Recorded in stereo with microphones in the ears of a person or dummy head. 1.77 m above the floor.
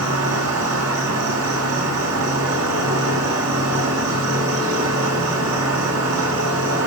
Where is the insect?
80° right, 7 m.